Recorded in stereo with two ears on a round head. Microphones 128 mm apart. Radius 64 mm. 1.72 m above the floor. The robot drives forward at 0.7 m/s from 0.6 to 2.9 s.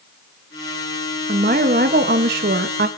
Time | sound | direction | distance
1.3 | a woman speaking | 55° right (ahead or behind) | 1.9 m